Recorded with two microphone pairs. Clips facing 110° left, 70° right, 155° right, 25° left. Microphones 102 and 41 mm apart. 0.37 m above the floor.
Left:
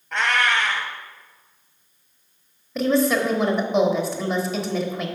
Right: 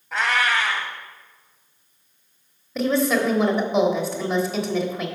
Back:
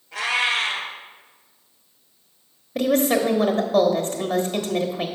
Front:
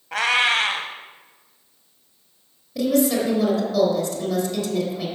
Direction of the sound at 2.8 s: 160° right.